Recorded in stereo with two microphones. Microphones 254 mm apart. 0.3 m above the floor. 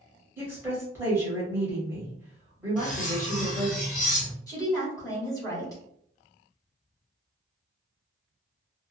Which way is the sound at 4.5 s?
15° left (ahead or behind).